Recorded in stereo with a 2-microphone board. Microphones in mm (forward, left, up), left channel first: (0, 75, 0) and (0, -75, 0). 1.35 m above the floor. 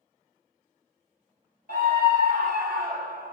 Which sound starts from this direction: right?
A scream, at 1.7 s.